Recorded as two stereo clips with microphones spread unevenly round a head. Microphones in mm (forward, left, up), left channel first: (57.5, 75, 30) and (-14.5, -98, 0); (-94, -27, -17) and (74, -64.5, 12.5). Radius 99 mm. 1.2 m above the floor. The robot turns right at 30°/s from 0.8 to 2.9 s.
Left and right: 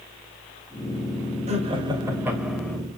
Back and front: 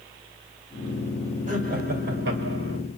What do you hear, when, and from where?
1.5 s laughter: 60° right, 3.5 m; by 2.8 s 20° right, 3.5 m